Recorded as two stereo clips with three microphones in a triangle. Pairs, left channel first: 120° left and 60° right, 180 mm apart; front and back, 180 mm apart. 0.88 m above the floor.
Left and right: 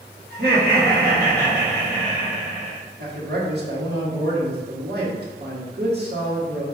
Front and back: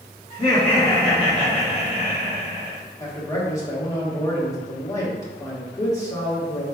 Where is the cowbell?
No cowbell in this recording.